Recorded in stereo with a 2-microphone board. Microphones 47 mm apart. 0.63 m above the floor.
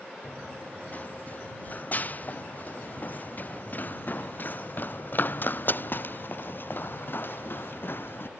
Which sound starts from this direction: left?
Running footsteps, at 0.2 s.